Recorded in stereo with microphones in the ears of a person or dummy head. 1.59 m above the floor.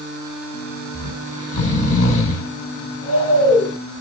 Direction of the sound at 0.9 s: 45° left (ahead or behind).